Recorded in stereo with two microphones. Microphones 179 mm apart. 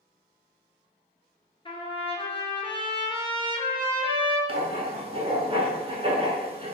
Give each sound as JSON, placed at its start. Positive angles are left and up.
{"t": 1.6, "sound": "a trumpet", "side_deg": 35, "distance_m": 0.8}
{"t": 4.5, "sound": "writing", "side_deg": -35, "distance_m": 0.6}